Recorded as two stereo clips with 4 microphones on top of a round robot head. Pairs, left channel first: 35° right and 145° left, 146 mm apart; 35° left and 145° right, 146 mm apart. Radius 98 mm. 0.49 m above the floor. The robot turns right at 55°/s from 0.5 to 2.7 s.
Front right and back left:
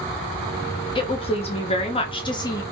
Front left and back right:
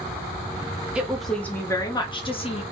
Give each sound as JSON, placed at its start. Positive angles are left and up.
{"t": 0.9, "sound": "a woman speaking", "azimuth_deg": -70, "distance_m": 0.8}